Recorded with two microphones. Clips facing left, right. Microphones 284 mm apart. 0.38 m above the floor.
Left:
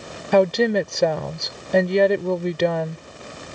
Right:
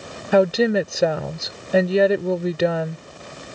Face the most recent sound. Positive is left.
turn(degrees=-5)  # may be behind; listen again after turning